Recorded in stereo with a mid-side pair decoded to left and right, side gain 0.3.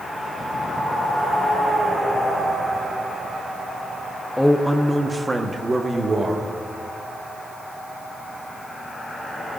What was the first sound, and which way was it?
A man speaking, 15° left.